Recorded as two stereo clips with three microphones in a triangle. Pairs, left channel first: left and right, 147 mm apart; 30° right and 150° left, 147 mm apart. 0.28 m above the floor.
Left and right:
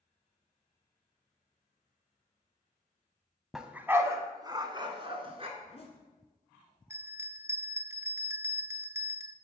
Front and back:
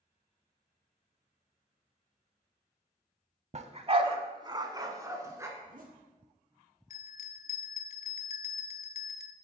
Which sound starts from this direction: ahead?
A bell, at 6.9 s.